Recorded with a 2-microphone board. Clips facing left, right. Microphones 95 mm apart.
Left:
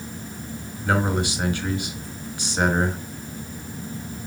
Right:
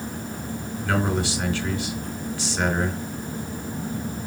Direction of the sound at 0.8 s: 20° left (ahead or behind).